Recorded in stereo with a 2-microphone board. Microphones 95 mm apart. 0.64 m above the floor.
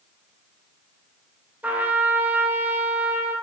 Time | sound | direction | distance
1.6 | a trumpet | 15° right (ahead or behind) | 0.9 m